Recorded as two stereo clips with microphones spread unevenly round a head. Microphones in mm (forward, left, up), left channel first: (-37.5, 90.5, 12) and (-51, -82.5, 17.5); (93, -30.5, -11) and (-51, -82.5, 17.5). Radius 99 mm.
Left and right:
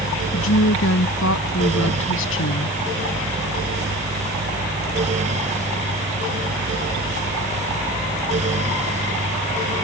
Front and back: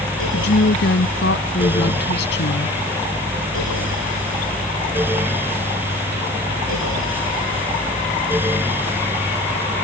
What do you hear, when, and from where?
0.3 s a woman speaking: 60° left